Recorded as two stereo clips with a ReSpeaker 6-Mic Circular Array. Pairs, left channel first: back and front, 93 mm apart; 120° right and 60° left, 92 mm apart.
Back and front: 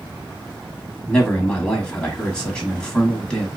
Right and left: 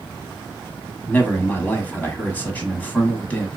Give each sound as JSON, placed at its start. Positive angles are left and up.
{"t": 1.1, "sound": "a man speaking", "azimuth_deg": -125, "distance_m": 1.0}